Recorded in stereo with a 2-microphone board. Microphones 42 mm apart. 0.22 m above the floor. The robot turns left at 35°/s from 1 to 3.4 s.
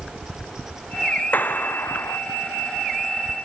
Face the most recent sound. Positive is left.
turn(degrees=55)